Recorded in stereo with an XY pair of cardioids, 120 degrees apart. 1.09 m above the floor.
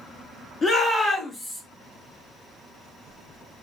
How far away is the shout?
About 1.8 m.